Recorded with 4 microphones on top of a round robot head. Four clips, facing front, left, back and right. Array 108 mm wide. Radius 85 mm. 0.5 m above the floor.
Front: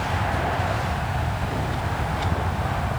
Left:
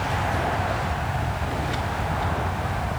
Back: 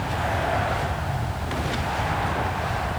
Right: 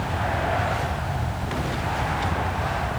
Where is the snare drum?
I don't hear a snare drum.